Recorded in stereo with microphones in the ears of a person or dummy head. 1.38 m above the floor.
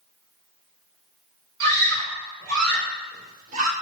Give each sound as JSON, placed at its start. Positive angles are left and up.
{"t": 1.6, "sound": "a scream", "side_deg": -65, "distance_m": 6.0}